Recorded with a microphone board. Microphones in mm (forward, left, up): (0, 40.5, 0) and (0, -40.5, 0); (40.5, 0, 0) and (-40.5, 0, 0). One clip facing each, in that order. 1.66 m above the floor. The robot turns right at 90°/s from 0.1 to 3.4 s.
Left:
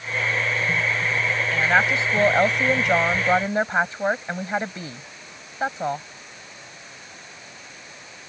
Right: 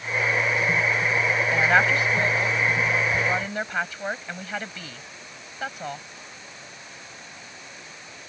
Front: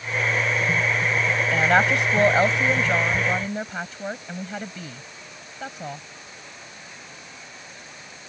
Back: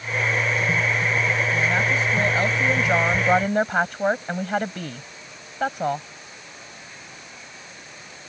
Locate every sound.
1.5 s a woman speaking: 20° right; by 6.0 s 150° left